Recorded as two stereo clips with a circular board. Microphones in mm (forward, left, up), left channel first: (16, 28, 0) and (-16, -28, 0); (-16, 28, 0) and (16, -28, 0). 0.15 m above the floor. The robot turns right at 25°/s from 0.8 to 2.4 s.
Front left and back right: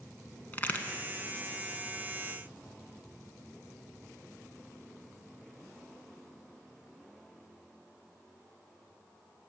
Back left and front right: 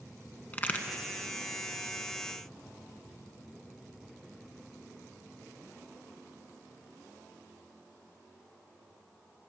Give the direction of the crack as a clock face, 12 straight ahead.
9 o'clock.